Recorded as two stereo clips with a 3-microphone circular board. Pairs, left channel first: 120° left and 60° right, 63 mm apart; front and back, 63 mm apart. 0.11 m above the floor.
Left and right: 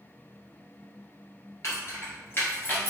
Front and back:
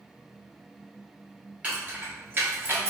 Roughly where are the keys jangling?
Behind left.